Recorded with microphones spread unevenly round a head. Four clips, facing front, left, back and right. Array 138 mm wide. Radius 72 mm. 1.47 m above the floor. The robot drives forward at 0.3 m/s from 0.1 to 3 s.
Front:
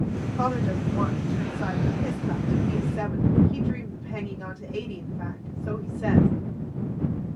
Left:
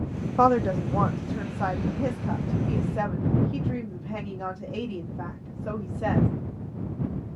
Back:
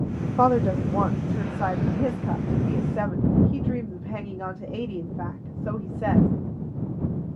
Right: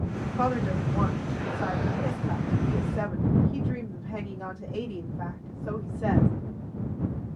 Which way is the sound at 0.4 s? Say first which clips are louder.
Left 7 dB, back 7 dB; 145° left.